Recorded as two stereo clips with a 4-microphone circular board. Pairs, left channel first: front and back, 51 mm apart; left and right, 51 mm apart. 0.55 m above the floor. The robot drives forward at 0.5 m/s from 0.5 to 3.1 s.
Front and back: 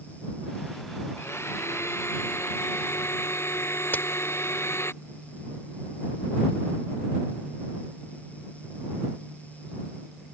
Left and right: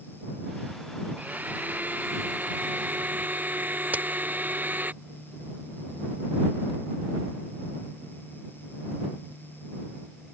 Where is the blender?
35° right.